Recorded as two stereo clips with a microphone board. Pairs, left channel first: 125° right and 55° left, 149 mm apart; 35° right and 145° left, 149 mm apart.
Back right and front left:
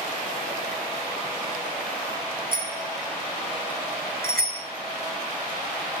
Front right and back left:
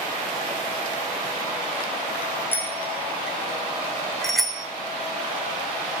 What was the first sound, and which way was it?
A bicycle bell, 40° left.